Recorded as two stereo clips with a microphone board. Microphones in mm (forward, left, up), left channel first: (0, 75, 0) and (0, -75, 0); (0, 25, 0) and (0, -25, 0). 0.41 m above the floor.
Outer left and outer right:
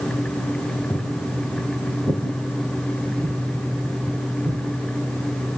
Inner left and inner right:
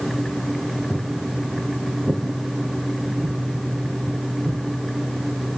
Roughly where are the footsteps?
Centre.